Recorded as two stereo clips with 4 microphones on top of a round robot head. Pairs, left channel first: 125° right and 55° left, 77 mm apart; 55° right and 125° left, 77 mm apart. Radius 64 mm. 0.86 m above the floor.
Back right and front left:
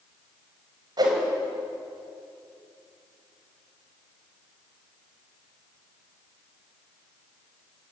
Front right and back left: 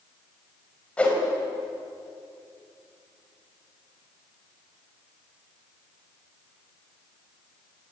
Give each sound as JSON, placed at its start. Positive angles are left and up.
{"t": 1.0, "sound": "a whoosh", "azimuth_deg": 20, "distance_m": 4.5}